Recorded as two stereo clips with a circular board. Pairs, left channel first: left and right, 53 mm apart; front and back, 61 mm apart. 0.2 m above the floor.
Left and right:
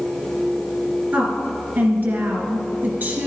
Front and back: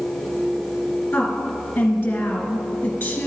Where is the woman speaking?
55° right, 2.5 m.